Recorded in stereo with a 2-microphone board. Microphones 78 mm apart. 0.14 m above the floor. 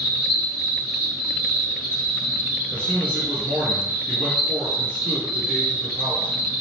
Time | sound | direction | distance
0.0 | an insect | 35° left (ahead or behind) | 1.8 m
2.7 | a man speaking | 20° left (ahead or behind) | 1.9 m